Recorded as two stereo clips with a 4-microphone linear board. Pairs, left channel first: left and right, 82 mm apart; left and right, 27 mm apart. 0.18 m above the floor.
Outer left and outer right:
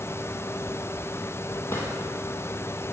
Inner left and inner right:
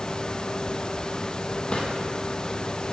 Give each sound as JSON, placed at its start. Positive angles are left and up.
{"t": 1.7, "sound": "a drawer", "side_deg": 30, "distance_m": 2.5}